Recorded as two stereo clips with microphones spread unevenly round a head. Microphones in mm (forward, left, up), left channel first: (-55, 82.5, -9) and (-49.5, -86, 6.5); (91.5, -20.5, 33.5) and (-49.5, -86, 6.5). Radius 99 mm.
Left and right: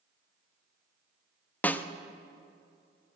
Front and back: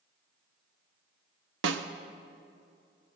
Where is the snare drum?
175° left, 0.6 m.